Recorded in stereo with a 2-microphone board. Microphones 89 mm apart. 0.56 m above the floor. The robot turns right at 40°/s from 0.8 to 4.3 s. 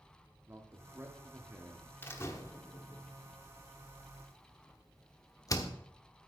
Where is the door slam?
25° left (ahead or behind), 1.1 m; by 5.7 s 40° left (ahead or behind), 1.1 m.